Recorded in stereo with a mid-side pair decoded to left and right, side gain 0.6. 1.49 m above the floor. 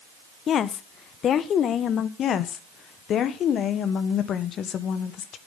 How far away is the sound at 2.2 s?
About 1.2 m.